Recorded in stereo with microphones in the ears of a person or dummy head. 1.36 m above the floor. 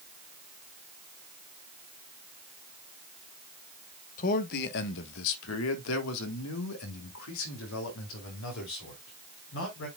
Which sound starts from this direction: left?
A man speaking, at 4.2 s.